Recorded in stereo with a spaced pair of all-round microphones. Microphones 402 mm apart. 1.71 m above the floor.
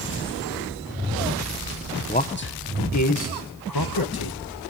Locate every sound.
2.1 s a man speaking: 20° left (ahead or behind), 1.0 m; by 4.4 s 65° left (ahead or behind), 1.9 m